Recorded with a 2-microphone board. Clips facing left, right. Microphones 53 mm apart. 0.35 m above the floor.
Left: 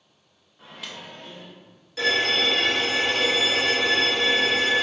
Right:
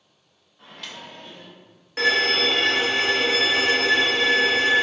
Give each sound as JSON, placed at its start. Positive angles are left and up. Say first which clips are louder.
{"t": 0.6, "sound": "a microwave", "louder": "even", "side_deg": 10, "distance_m": 0.6}
{"t": 2.0, "sound": "a violin", "louder": "right 2 dB", "side_deg": -50, "distance_m": 1.1}